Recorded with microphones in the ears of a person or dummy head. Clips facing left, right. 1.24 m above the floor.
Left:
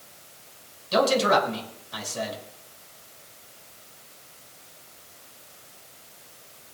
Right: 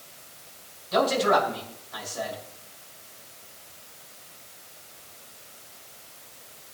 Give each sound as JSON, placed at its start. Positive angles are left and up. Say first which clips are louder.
{"t": 0.9, "sound": "a man speaking", "louder": "left 1 dB", "side_deg": 45, "distance_m": 6.0}